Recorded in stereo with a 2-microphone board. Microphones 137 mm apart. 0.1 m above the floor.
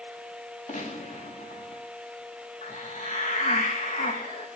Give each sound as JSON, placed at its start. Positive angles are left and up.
{"t": 0.7, "sound": "a gunshot", "side_deg": 65, "distance_m": 9.5}
{"t": 2.6, "sound": "a hiss", "side_deg": 60, "distance_m": 5.5}